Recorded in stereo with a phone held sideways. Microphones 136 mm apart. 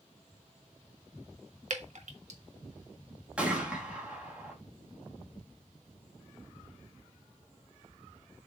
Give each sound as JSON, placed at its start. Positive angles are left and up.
{"t": 1.7, "sound": "dripping", "side_deg": -60, "distance_m": 1.3}
{"t": 3.4, "sound": "a gunshot", "side_deg": -10, "distance_m": 2.0}